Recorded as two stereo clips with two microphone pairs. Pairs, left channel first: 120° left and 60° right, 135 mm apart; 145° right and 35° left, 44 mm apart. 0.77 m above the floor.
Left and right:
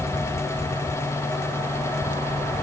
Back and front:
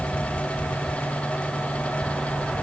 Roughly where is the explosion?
I don't hear an explosion.